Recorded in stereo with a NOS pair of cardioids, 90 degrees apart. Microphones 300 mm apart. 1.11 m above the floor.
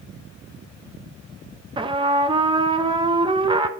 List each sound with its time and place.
1.8 s a trumpet: 15° right, 0.6 m